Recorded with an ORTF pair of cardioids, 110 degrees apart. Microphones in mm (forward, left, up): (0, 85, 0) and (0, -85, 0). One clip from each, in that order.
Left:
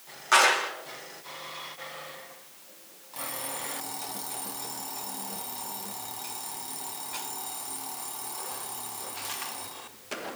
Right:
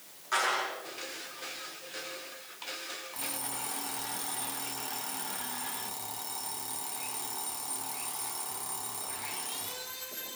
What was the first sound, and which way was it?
A clap, 60° left.